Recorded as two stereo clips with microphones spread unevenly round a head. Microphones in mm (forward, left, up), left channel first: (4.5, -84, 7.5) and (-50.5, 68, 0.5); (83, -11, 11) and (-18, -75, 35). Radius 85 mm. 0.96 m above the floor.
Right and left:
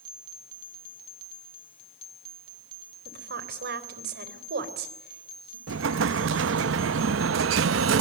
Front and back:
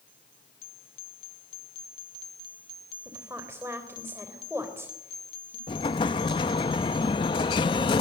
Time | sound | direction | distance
3.0 | a woman speaking | 135° left | 3.5 m
5.7 | an explosion | 90° left | 0.7 m